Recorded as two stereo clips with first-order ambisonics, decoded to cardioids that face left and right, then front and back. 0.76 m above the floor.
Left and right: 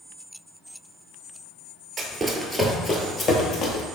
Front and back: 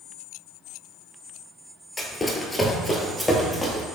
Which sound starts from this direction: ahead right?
Running footsteps, at 2.0 s.